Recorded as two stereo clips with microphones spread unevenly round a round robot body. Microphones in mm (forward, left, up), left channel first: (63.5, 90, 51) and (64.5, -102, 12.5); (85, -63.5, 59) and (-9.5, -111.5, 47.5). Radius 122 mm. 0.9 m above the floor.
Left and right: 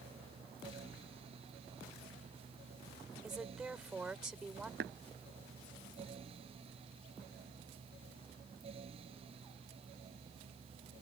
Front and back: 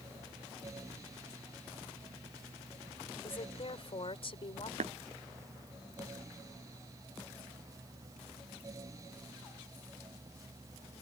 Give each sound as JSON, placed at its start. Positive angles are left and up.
{"t": 3.2, "sound": "a woman speaking", "azimuth_deg": -5}
{"t": 4.8, "sound": "tapping", "azimuth_deg": -140}